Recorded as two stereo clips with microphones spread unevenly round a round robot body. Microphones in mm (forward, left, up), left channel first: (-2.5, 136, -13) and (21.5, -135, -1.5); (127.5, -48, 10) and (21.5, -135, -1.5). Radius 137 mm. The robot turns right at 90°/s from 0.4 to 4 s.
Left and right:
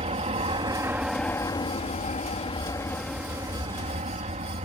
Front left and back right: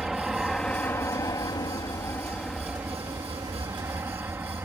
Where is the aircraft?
60° right; by 4.7 s 95° right.